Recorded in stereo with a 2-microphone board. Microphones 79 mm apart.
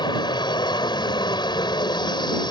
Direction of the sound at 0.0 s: 70° left (ahead or behind).